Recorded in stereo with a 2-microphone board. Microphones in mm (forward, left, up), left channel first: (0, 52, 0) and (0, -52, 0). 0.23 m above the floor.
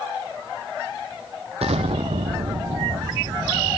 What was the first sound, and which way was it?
An explosion, 75° right (ahead or behind).